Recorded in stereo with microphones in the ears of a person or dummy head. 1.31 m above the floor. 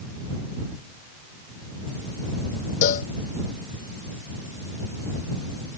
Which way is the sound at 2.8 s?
45° left (ahead or behind).